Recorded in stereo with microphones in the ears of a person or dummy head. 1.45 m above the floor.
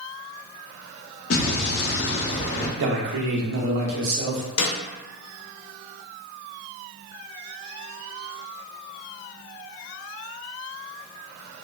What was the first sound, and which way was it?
An explosion, 75° left (ahead or behind).